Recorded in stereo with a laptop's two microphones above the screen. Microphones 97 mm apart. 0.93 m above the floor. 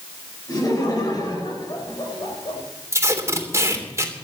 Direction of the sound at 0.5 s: 40° left (ahead or behind).